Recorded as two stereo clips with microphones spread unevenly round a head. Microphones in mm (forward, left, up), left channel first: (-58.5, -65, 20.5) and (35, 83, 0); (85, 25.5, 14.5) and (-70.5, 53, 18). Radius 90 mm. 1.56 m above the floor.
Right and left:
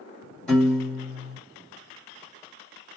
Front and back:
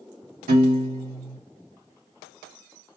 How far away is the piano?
About 2 m.